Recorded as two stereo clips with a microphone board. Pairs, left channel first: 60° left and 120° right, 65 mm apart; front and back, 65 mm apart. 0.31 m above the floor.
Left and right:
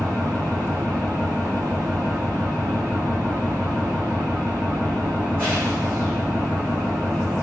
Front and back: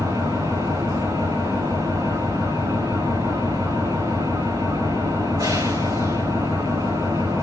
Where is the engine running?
Straight behind, 7.5 m.